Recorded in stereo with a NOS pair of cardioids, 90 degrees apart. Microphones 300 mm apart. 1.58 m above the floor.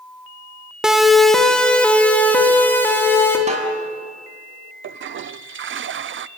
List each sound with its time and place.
0.8 s a siren: 5° right, 2.5 m; by 3.4 s 5° left, 5.5 m
3.5 s a snare drum: 25° right, 7 m
4.8 s a toilet flushing: 45° right, 0.7 m